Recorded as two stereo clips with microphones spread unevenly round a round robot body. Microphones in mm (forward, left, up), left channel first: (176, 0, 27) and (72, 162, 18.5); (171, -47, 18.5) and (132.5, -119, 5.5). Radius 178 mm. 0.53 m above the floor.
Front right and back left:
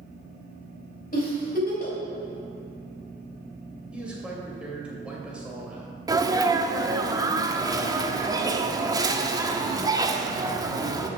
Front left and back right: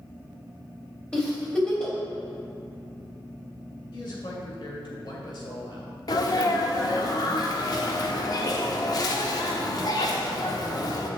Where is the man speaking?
40° left, 2.5 m.